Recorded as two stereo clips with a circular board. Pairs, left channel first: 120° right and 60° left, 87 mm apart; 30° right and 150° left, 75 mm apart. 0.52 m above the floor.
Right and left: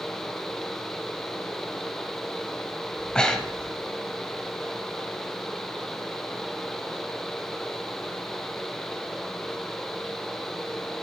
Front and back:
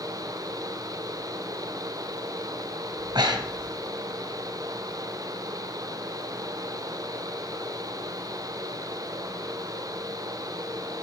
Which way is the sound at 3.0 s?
160° left.